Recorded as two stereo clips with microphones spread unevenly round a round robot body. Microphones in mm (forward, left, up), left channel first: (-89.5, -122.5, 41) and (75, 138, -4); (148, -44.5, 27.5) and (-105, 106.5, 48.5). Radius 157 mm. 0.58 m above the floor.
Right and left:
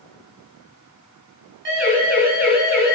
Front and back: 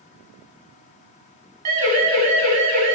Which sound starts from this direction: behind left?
A siren, at 1.6 s.